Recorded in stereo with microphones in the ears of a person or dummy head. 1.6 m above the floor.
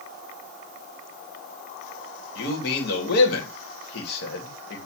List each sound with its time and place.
2.4 s a man speaking: 65° left (ahead or behind), 3 m